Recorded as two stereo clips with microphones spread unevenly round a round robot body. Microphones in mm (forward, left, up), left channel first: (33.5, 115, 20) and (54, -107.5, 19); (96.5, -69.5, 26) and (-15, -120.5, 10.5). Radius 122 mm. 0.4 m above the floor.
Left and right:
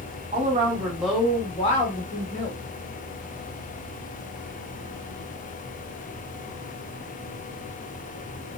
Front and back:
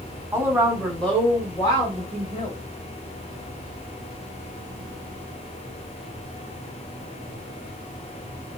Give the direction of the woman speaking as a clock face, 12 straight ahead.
4 o'clock.